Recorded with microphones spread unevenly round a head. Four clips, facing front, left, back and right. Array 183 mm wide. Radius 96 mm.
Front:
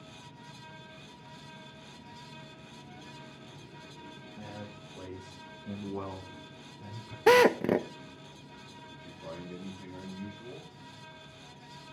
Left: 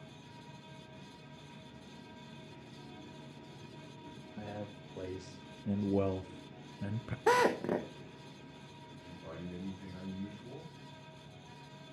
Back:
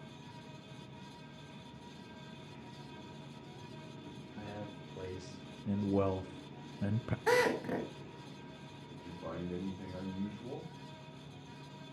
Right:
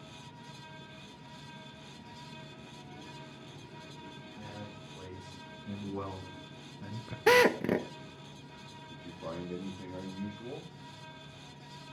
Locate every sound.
4.4 s a man speaking: 70° left, 2.5 m; by 7.2 s 165° left, 0.9 m
7.3 s a drill: 25° right, 1.2 m
8.9 s a man speaking: 120° right, 4.5 m